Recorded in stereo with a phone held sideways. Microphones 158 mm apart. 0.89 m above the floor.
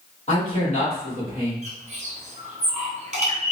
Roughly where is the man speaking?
Left.